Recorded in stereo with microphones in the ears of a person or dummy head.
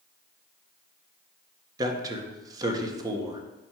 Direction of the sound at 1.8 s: 25° right (ahead or behind).